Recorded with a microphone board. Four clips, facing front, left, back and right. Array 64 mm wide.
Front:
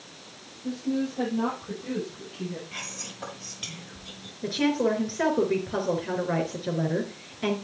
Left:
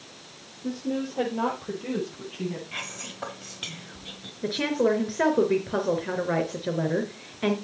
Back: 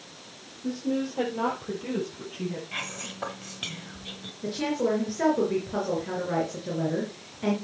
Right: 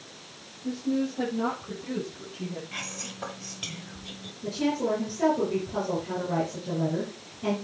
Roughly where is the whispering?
Behind left.